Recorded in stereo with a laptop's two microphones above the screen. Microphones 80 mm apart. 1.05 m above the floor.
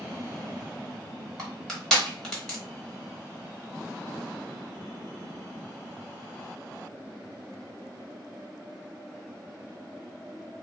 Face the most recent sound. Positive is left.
turn(degrees=10)  # may be behind; listen again after turning